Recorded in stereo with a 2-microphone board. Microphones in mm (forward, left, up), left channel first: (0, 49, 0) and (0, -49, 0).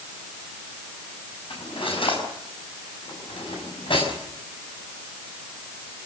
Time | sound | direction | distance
1.5 | cutlery clinking | 65° left (ahead or behind) | 6.5 m